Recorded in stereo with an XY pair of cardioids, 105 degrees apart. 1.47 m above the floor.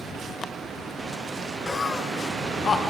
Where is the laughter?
25° left, 0.5 m; by 2.8 s 45° left, 1.4 m.